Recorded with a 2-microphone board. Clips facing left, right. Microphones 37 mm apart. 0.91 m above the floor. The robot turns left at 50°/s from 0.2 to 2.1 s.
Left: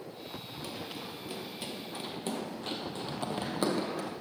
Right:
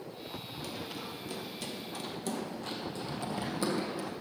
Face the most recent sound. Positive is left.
turn(degrees=60)  # may be behind; listen again after turning